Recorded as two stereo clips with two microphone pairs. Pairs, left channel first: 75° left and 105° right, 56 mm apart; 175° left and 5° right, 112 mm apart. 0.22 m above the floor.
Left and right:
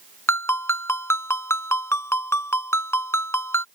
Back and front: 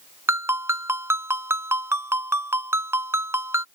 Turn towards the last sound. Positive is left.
turn(degrees=55)